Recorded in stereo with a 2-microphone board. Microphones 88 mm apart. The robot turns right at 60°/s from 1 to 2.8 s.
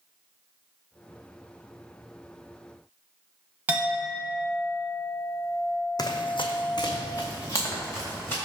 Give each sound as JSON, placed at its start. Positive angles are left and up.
{"t": 3.7, "sound": "a clink", "side_deg": -20, "distance_m": 0.7}
{"t": 6.0, "sound": "running footsteps", "side_deg": 50, "distance_m": 0.7}